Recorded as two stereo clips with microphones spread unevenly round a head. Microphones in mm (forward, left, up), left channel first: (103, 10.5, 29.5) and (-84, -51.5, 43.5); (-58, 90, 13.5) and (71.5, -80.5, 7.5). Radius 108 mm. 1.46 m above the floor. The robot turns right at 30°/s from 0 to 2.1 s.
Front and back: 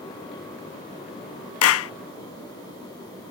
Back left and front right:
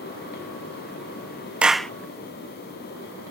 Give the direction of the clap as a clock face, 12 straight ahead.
11 o'clock.